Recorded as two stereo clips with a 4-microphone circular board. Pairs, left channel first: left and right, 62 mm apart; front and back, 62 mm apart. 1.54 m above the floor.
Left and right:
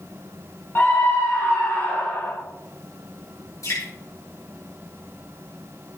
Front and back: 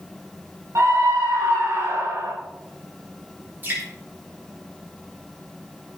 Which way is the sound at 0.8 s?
145° left.